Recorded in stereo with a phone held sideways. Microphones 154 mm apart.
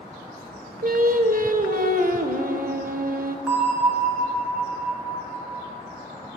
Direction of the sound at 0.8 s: 65° right (ahead or behind).